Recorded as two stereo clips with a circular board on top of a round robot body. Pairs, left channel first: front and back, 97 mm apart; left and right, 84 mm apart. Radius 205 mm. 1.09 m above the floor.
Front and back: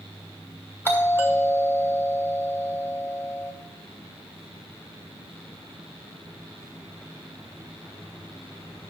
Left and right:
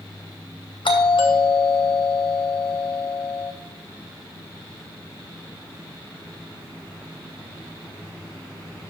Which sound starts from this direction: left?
A doorbell, at 0.8 s.